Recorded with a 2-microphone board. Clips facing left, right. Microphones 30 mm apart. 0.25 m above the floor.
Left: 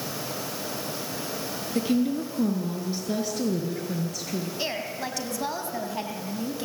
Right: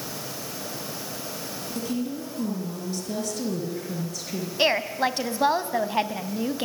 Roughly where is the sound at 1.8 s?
Left.